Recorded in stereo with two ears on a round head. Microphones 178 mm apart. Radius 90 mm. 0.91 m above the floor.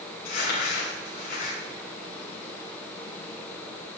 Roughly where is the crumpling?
Left.